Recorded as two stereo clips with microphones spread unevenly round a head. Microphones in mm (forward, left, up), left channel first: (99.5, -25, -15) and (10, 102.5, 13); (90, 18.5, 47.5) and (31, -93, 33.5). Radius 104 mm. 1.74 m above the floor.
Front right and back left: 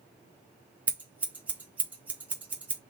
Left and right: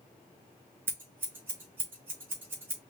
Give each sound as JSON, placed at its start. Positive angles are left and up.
{"t": 0.9, "sound": "scissors", "azimuth_deg": 165, "distance_m": 0.9}